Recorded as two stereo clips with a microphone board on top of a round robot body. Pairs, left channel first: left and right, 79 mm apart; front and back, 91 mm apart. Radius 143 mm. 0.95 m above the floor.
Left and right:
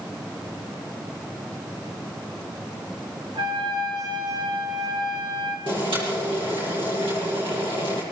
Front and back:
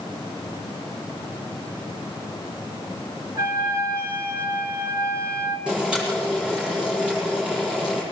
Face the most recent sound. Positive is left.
turn(degrees=-100)